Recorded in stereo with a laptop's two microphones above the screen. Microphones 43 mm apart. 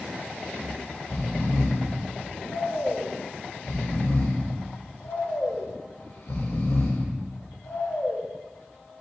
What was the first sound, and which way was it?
Snoring, 65° left (ahead or behind).